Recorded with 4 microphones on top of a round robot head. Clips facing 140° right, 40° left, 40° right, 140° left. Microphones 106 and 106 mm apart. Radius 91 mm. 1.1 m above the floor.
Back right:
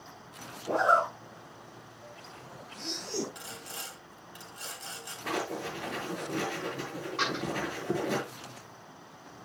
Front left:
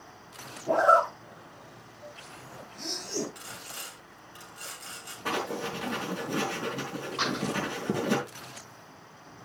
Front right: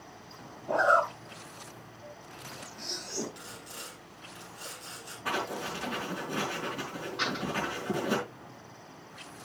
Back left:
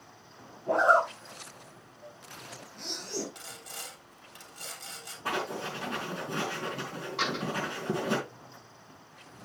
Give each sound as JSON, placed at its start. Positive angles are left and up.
{"t": 0.7, "sound": "a zipper", "azimuth_deg": 95, "distance_m": 4.5}
{"t": 3.4, "sound": "sawing", "azimuth_deg": 155, "distance_m": 3.0}
{"t": 5.2, "sound": "writing", "azimuth_deg": 75, "distance_m": 4.5}
{"t": 7.2, "sound": "a door slam", "azimuth_deg": 115, "distance_m": 7.0}